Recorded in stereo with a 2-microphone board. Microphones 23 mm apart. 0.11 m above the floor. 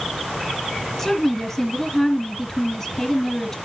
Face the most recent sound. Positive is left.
turn(degrees=20)  # may be behind; listen again after turning